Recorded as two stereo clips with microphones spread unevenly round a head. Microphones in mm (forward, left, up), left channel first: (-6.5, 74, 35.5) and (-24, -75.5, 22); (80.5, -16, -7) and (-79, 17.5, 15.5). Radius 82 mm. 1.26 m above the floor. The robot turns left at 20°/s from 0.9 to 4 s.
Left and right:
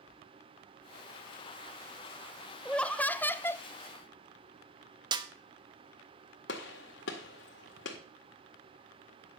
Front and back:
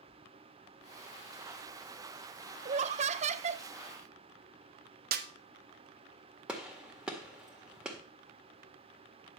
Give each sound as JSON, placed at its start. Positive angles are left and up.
{"t": 2.6, "sound": "laughter", "azimuth_deg": 170, "distance_m": 0.5}
{"t": 5.1, "sound": "a snare drum", "azimuth_deg": -160, "distance_m": 0.9}
{"t": 6.5, "sound": "a gunshot", "azimuth_deg": 85, "distance_m": 1.9}